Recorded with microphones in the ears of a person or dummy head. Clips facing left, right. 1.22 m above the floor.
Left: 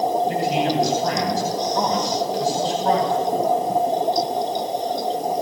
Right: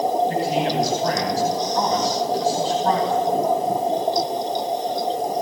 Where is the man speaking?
70° left (ahead or behind), 9.5 m.